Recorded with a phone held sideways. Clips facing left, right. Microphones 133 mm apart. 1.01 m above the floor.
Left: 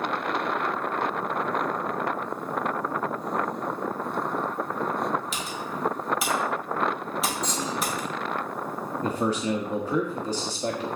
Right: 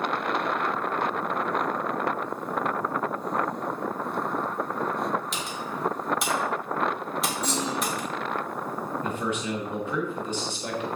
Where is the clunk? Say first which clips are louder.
Right 1 dB; 10° right (ahead or behind), 5 m.